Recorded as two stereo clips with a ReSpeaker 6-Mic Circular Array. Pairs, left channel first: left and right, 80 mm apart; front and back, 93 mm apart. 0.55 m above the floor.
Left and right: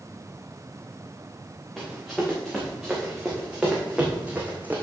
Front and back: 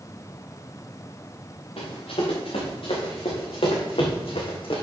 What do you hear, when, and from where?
1.8 s running footsteps: straight ahead, 4 m; by 4.8 s 20° right, 2 m